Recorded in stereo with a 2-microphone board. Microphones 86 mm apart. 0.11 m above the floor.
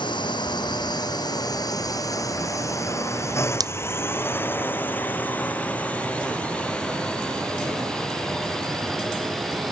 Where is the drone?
65° left (ahead or behind); by 9.7 s centre (ahead or behind).